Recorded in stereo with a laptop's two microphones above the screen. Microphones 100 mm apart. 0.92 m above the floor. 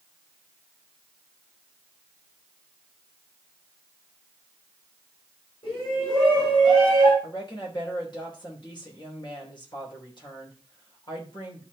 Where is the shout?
45° left (ahead or behind), 7.5 m.